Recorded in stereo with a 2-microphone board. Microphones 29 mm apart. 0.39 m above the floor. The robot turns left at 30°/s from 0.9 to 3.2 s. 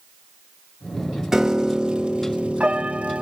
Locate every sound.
1.3 s a piano: 20° right, 0.9 m; by 3.2 s 75° right, 0.9 m